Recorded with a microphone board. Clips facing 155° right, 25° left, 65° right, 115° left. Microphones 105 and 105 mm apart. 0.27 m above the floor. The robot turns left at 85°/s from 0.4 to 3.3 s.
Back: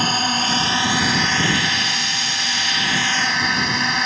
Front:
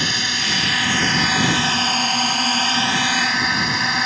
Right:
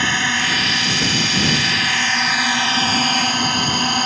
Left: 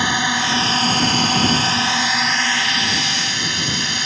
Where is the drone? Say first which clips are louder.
Back 5 dB, left 1 dB; straight behind; by 4.1 s 65° right.